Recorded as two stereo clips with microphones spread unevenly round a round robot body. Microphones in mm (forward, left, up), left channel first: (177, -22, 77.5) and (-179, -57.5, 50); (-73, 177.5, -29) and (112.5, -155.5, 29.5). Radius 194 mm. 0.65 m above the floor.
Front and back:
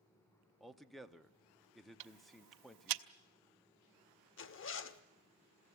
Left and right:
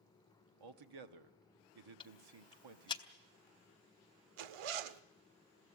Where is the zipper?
50° right, 0.8 m.